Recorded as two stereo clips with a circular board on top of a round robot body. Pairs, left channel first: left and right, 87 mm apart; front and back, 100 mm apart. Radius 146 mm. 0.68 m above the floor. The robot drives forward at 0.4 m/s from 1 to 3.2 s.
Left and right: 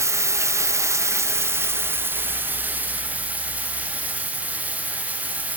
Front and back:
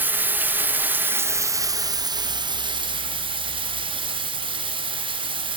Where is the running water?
120° right, 0.9 m; by 5.6 s 160° right, 1.4 m.